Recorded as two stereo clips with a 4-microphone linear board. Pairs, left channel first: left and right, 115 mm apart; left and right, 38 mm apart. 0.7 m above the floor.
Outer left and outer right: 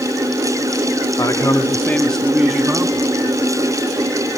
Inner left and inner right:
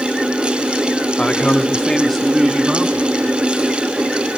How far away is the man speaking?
About 1.7 m.